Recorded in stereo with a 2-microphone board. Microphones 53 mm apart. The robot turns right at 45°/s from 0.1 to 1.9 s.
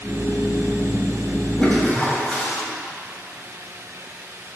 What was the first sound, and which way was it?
A toilet flushing, 15° left (ahead or behind).